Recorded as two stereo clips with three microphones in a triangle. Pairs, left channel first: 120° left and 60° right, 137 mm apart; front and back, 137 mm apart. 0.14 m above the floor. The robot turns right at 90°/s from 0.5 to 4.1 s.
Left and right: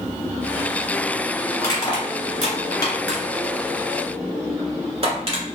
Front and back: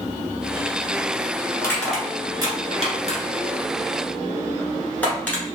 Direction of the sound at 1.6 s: 60° left.